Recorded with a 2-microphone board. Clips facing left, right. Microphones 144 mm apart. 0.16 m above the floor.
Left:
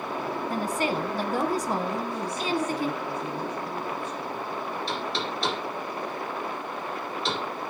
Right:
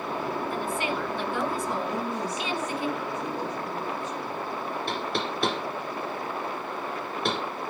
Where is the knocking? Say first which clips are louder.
Right 1 dB; 55° right (ahead or behind), 2.5 m.